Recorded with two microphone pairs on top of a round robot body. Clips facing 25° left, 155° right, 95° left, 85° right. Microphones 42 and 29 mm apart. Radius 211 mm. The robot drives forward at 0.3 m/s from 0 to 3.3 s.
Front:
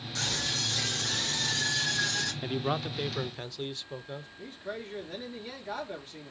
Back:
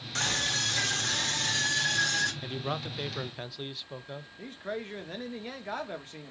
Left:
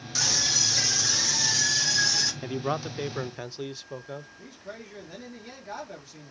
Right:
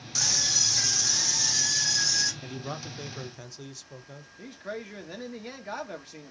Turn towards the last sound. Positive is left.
turn(degrees=-125)